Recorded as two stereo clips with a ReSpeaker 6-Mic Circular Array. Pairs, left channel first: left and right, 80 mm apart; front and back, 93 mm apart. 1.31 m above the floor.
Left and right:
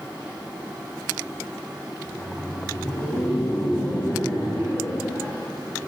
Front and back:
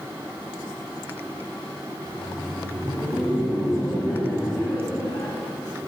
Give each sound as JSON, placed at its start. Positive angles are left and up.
{"t": 2.0, "sound": "laughter", "azimuth_deg": 70, "distance_m": 1.6}